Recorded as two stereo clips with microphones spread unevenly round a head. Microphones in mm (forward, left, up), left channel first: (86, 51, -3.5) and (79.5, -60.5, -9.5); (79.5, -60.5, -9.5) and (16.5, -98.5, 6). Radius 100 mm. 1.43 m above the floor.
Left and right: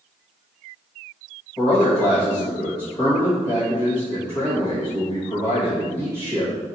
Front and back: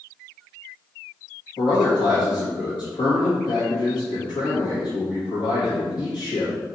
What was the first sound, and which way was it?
A man speaking, 35° left.